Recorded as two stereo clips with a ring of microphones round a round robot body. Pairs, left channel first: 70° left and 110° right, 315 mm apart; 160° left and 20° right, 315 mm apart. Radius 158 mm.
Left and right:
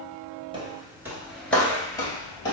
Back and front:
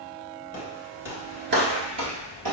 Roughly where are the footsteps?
Behind.